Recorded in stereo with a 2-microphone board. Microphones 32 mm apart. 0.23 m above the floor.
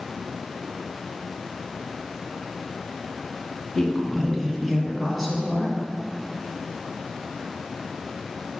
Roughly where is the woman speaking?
Centre.